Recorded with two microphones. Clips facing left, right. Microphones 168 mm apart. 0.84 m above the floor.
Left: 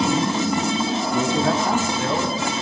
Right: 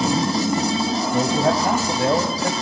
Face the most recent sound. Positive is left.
turn(degrees=-40)  # may be behind; listen again after turning